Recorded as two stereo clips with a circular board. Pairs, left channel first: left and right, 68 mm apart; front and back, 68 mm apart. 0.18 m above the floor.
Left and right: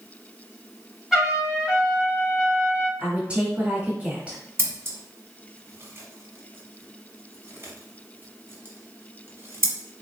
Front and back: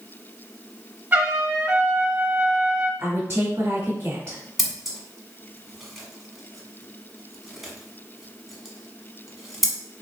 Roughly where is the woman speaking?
Behind right.